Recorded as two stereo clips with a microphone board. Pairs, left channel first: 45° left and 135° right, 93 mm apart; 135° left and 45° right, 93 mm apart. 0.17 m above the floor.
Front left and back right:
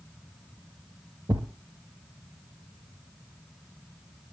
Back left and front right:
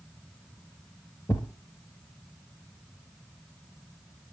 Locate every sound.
1.3 s a thud: 175° right, 1.2 m